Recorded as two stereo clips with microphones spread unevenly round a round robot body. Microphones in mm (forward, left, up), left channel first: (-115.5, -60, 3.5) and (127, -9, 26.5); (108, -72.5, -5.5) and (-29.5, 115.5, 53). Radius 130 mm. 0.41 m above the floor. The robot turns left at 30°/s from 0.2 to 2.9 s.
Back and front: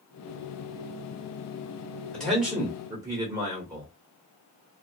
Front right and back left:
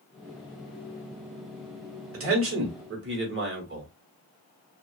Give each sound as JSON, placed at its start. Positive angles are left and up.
{"t": 2.1, "sound": "a man speaking", "azimuth_deg": 115, "distance_m": 1.2}